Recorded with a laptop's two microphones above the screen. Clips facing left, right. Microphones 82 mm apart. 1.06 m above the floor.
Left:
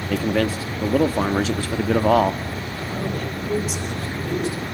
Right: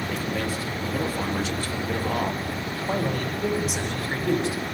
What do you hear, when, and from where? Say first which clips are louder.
0.1 s a man speaking: left 11 dB; 85° left, 1.5 m
2.9 s a man speaking: right 2 dB; 55° right (ahead or behind), 6 m